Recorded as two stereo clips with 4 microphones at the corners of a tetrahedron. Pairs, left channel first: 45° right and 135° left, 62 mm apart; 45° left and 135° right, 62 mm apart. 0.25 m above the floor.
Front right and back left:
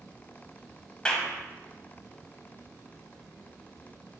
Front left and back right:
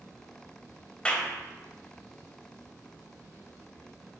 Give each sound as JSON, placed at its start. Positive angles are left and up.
{"t": 1.1, "sound": "a clap", "azimuth_deg": 5, "distance_m": 0.9}